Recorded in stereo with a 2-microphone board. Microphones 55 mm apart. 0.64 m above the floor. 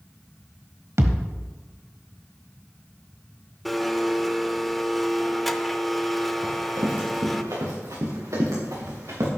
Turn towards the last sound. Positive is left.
turn(degrees=-75)  # may be behind; listen again after turning